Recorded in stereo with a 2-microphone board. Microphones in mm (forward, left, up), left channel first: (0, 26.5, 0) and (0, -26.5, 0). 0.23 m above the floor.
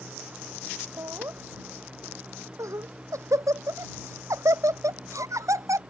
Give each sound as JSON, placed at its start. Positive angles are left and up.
{"t": 1.0, "sound": "laughter", "side_deg": -80}